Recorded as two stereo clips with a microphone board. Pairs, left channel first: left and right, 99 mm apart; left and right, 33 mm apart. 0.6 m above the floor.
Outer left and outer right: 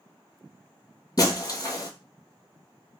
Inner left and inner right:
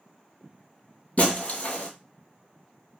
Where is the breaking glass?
40° left (ahead or behind), 0.7 m.